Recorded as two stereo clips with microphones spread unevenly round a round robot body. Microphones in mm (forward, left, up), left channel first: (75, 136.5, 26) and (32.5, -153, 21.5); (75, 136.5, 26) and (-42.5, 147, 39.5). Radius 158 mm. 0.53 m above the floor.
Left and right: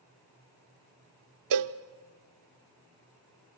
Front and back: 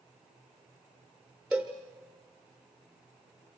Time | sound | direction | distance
1.5 | a cowbell | 100° right | 0.8 m